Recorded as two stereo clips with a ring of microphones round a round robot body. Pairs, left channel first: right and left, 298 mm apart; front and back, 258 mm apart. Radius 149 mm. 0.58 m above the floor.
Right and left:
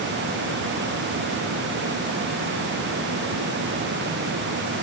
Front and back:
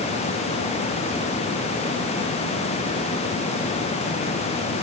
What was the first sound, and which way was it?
Only background noise.